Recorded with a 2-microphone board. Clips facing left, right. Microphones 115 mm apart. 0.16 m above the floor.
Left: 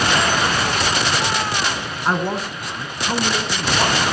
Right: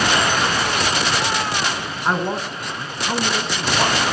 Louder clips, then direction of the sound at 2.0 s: Even; centre (ahead or behind).